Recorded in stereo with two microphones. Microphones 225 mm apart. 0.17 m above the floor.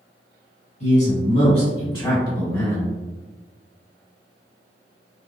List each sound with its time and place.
0.8 s a man speaking: 30° left (ahead or behind), 1.4 m; by 3.0 s 10° left (ahead or behind), 1.2 m